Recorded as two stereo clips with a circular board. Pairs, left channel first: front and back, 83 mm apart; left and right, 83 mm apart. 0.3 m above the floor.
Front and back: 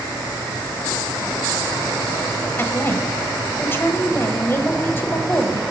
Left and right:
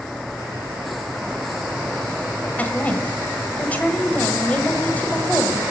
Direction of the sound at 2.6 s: 35° left.